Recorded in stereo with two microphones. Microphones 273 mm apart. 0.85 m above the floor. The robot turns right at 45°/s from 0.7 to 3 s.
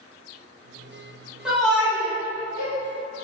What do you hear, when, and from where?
1.4 s a shout: 5° right (ahead or behind), 1.1 m; by 2.7 s 35° left (ahead or behind), 1.1 m